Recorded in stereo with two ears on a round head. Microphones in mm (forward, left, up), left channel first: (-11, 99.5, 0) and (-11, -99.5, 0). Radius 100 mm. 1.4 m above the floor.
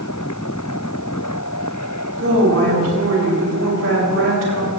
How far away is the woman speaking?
About 6 m.